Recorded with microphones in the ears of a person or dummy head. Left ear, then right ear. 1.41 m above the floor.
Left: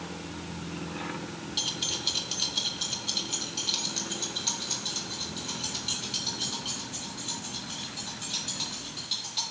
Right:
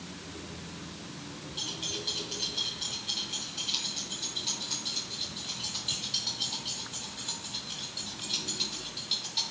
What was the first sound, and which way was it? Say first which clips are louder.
Keys jangling: left 5 dB; 45° left (ahead or behind).